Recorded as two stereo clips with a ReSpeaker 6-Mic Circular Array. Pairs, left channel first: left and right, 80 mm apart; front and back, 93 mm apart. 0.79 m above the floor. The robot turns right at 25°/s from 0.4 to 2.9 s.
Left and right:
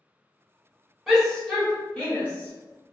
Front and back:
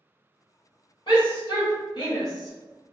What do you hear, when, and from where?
1.1 s a shout: straight ahead, 1.5 m; by 2.9 s 45° left, 1.5 m